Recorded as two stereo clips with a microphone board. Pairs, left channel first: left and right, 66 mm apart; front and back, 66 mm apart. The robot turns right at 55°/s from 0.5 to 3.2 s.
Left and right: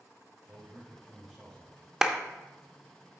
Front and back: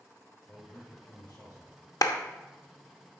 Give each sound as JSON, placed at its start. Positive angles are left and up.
{"t": 0.5, "sound": "a man speaking", "azimuth_deg": -45, "distance_m": 3.0}
{"t": 2.0, "sound": "a clap", "azimuth_deg": -10, "distance_m": 0.5}